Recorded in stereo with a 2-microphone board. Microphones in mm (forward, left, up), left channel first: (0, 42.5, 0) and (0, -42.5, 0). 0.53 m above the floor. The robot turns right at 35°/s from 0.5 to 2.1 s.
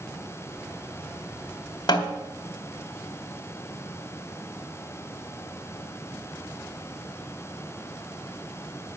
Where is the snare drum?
55° left (ahead or behind), 2.0 m.